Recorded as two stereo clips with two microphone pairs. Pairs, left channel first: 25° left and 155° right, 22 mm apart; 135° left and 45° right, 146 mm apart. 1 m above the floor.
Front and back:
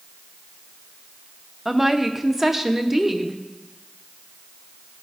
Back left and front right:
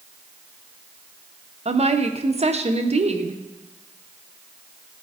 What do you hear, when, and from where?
1.6 s a woman speaking: 80° right, 0.6 m